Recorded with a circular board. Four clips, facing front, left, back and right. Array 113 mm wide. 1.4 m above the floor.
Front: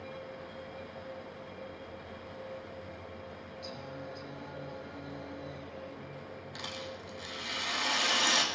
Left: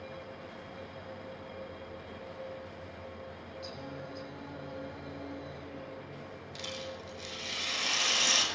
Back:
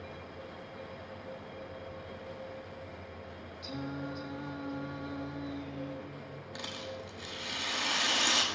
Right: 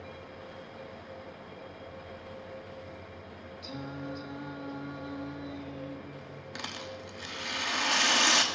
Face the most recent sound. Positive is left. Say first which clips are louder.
# right 1 dB, back 2 dB
turn(degrees=-90)